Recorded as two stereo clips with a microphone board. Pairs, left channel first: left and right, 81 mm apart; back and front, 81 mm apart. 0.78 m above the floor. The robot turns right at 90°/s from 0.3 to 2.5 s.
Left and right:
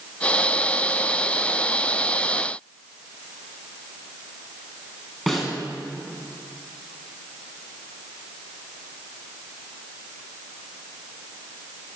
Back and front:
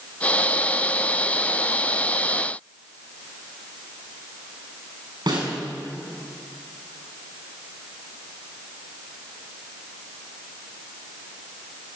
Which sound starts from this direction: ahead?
A snare drum, at 5.3 s.